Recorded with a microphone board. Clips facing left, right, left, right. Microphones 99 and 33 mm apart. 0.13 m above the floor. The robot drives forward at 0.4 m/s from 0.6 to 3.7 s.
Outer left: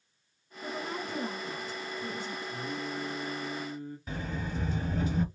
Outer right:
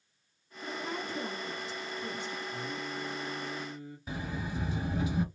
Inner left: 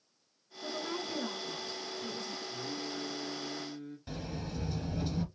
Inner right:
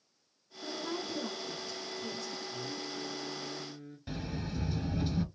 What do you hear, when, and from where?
0.6 s a woman speaking: 45° left (ahead or behind), 3 m; by 2.4 s 35° left (ahead or behind), 3 m
2.5 s singing: 45° left (ahead or behind), 2.5 m; by 4.0 s 35° left (ahead or behind), 3 m
4.1 s a sliding door: 10° right (ahead or behind), 1.4 m